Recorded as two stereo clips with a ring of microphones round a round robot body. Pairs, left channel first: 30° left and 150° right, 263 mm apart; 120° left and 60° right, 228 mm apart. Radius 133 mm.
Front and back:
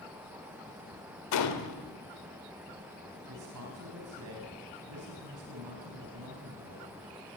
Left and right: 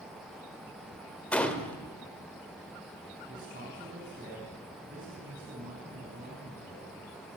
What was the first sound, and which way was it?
A gunshot, 35° left.